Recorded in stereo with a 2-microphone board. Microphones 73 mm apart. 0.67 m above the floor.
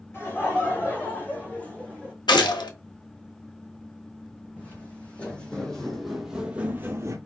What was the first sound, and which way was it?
Laughter, 35° left (ahead or behind).